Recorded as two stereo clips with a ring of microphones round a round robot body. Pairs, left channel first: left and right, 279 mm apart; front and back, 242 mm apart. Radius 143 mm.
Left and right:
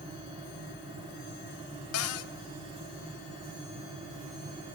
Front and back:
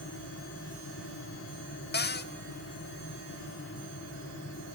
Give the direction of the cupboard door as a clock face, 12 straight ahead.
10 o'clock.